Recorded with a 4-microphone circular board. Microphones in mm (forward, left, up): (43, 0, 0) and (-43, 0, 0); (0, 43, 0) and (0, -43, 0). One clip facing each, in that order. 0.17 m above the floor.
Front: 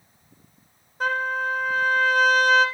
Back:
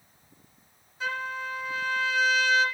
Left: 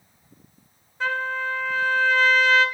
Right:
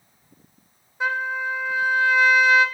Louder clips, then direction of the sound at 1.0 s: Front 8 dB, right 1 dB; 20° right.